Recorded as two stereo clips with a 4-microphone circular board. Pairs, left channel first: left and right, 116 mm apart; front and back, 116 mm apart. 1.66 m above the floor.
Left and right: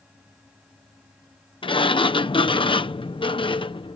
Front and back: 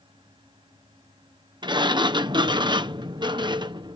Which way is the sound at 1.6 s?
130° left.